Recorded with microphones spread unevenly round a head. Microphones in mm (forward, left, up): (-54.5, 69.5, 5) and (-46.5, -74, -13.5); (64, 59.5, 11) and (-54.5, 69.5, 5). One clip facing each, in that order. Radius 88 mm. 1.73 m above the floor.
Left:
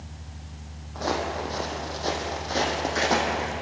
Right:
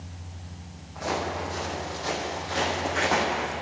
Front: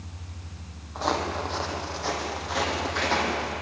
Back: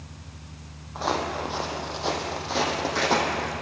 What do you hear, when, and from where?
0.9 s footsteps: 85° left, 4 m; by 3.5 s 140° left, 5 m